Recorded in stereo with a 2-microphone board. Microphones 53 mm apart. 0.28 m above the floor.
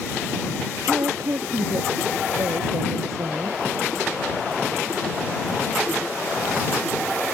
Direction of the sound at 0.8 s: 75° right (ahead or behind).